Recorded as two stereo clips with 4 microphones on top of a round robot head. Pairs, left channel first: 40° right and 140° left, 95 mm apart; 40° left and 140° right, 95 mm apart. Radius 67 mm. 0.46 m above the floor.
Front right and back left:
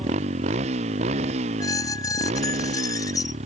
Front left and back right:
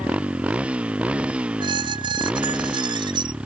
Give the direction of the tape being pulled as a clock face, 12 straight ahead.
I don't hear tape being pulled.